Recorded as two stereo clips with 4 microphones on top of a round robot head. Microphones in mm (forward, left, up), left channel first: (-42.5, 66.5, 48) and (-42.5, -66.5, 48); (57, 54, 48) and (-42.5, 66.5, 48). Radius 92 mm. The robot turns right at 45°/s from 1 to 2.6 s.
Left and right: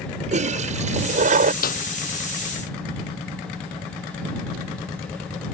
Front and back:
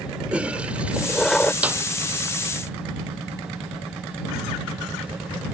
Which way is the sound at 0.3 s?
110° right.